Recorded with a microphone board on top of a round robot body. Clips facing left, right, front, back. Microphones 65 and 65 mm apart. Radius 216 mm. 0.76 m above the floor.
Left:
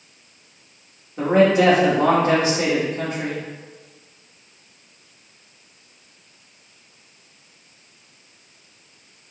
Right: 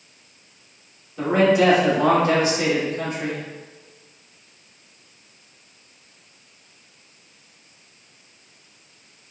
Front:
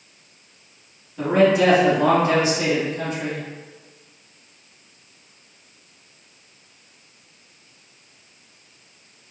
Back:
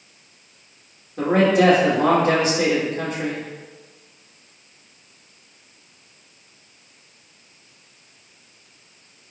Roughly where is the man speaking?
Behind left.